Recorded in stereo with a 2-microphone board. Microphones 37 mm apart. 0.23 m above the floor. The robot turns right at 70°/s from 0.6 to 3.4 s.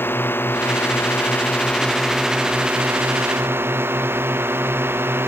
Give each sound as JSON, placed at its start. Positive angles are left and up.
{"t": 0.0, "sound": "a drone", "azimuth_deg": 75}